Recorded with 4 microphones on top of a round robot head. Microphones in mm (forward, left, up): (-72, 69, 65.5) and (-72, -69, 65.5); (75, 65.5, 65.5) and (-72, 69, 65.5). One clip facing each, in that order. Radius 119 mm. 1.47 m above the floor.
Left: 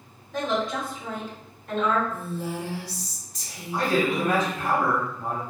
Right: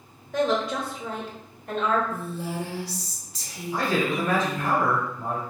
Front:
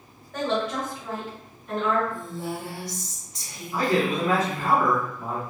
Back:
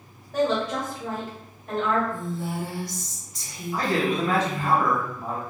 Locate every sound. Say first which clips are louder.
0.3 s a woman speaking: right 3 dB, back 2 dB; 100° right, 1.2 m; by 2.0 s 130° right, 1.7 m
2.1 s a woman speaking: even, back 2 dB; 70° right, 0.8 m
3.7 s a man speaking: left 1 dB, front 1 dB; 90° right, 1.3 m